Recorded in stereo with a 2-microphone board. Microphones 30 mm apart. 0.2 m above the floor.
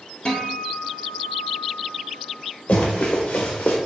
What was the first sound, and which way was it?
A guitar, 35° left (ahead or behind).